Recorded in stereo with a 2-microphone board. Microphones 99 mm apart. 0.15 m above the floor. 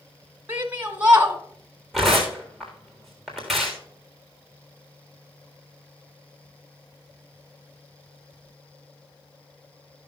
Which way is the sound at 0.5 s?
20° right (ahead or behind).